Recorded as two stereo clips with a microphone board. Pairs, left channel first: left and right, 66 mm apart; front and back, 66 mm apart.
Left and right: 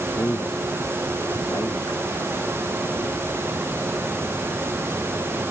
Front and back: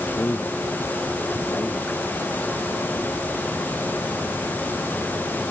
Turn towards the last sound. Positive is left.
turn(degrees=60)